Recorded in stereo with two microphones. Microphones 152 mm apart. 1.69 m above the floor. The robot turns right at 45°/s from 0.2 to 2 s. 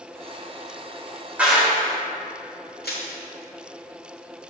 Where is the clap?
10° right (ahead or behind), 2.0 m; by 1.8 s 5° left (ahead or behind), 2.0 m.